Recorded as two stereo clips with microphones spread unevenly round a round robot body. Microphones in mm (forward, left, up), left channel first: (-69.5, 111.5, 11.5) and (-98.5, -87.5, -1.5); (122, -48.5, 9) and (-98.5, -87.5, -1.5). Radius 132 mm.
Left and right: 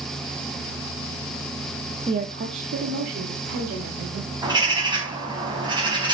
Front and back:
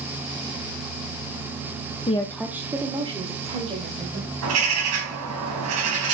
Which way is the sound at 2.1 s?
45° right.